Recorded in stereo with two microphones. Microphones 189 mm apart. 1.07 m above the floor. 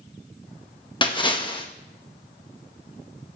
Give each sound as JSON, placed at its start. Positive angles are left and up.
{"t": 1.0, "sound": "a splash", "side_deg": 25, "distance_m": 1.4}